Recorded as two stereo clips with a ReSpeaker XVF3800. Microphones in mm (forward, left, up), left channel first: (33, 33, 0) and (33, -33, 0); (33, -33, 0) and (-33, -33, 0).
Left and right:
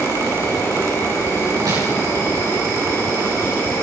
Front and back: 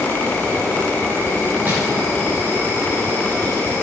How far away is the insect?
About 7 m.